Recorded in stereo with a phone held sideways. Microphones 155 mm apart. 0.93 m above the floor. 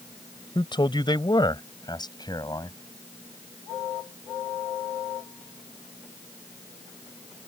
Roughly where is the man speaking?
Left.